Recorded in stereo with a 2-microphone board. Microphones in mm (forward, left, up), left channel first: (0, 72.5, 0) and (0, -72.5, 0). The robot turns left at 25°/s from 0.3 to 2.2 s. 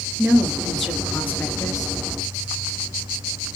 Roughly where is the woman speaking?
Behind.